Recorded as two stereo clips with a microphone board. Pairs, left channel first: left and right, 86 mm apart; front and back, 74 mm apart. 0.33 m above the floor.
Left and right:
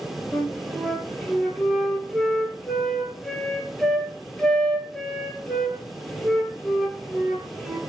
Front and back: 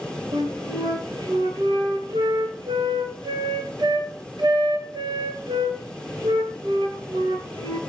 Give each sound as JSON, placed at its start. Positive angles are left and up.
{"t": 0.3, "sound": "a flute", "azimuth_deg": 175, "distance_m": 1.8}